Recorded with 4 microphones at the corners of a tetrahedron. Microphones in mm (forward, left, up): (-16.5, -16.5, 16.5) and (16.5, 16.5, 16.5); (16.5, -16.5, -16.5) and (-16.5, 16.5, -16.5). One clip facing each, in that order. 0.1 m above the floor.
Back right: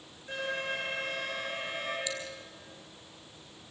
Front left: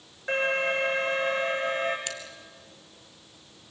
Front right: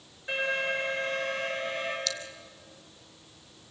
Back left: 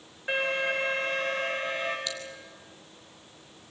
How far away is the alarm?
About 7.5 m.